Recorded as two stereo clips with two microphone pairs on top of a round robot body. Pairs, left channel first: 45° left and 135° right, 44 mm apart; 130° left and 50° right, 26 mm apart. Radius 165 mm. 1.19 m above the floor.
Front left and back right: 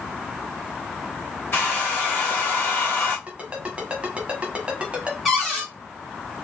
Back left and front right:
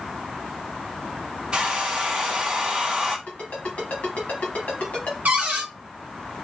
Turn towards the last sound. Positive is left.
turn(degrees=-45)